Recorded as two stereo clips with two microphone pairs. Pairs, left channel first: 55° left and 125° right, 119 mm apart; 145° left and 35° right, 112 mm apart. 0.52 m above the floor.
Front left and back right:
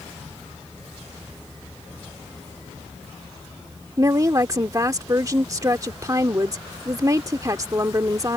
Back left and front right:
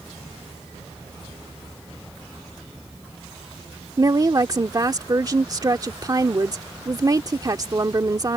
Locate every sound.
4.0 s a woman speaking: 80° right